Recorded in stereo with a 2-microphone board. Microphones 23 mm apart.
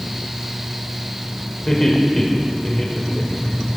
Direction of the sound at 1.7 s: 15° left (ahead or behind).